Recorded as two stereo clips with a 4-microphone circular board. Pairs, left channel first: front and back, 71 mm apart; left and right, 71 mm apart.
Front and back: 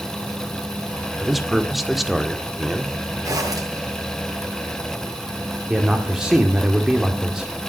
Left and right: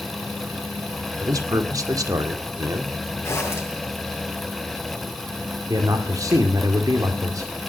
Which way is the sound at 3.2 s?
140° left.